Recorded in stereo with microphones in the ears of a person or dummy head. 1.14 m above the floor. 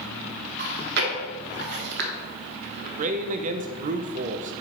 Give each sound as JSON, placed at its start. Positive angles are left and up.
{"t": 0.6, "sound": "chewing", "side_deg": -55, "distance_m": 1.0}
{"t": 3.0, "sound": "a man speaking", "side_deg": -40, "distance_m": 0.5}